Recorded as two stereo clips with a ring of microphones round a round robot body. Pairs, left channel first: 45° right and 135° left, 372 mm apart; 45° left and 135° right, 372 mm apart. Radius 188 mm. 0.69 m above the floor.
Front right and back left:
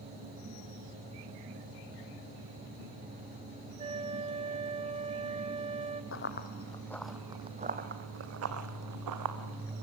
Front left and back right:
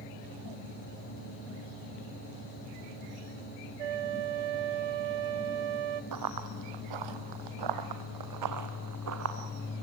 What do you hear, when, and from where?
3.8 s a flute: 150° right, 1.0 m
6.1 s running footsteps: 100° right, 1.4 m; by 9.8 s 170° left, 2.5 m